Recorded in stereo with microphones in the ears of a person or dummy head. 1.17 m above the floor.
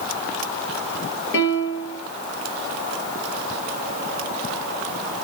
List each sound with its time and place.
1.3 s a piano: 70° left (ahead or behind), 3 m